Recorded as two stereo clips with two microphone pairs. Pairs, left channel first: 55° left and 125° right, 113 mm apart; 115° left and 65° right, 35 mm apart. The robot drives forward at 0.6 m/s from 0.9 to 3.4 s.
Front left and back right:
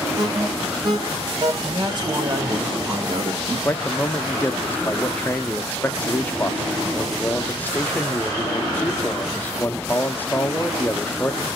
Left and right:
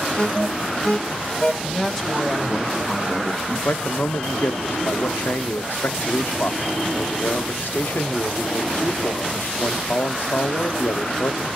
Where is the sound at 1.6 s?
170° right, 2 m; by 3.5 s 175° right, 3 m.